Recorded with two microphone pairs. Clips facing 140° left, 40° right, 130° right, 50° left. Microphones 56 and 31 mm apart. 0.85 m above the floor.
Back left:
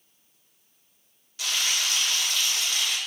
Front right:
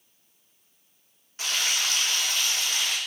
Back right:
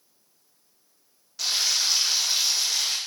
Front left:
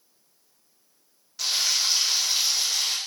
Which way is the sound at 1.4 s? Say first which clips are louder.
Even, even; 45° right.